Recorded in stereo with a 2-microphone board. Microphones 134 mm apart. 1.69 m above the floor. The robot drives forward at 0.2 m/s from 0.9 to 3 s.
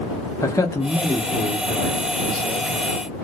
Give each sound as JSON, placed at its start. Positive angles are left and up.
{"t": 0.4, "sound": "a man speaking", "side_deg": 25, "distance_m": 0.8}